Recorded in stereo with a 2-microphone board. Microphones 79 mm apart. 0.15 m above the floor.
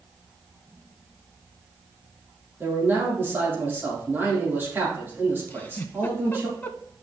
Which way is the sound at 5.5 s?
25° left (ahead or behind).